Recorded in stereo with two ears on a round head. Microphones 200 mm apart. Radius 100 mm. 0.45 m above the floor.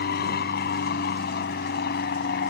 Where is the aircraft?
45° left (ahead or behind).